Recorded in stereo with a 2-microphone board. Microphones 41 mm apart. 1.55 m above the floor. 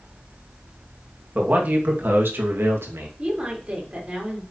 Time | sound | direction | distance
1.4 | a man speaking | 35° right (ahead or behind) | 2.5 m
3.2 | a woman speaking | 20° right (ahead or behind) | 4.5 m